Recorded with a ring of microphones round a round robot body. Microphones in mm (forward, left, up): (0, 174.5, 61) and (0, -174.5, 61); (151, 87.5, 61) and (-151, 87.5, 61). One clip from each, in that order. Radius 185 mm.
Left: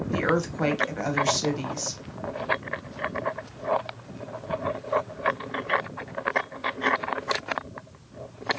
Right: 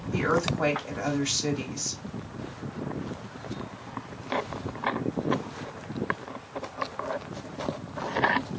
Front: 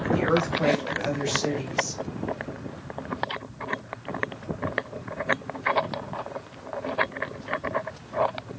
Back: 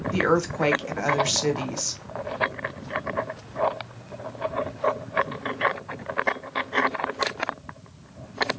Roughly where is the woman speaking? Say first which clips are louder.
Even, back 1 dB; behind.